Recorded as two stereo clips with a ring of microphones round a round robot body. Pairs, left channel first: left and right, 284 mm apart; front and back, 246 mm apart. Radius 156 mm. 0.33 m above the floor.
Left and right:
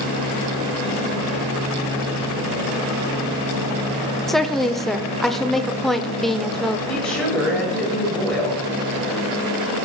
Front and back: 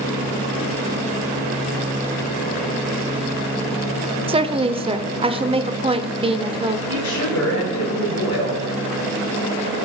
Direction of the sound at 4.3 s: Straight behind.